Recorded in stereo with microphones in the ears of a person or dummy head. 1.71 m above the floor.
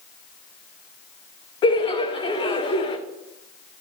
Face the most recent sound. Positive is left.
turn(degrees=30)  # may be behind; listen again after turning